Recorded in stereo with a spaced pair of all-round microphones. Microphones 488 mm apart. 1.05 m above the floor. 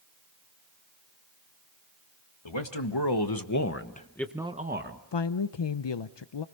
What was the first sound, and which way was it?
A man speaking, 65° left (ahead or behind).